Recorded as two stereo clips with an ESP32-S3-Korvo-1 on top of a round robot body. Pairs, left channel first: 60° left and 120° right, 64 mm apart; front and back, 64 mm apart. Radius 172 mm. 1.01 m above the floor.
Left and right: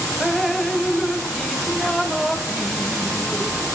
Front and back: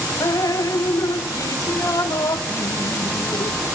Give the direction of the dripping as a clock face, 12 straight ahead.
1 o'clock.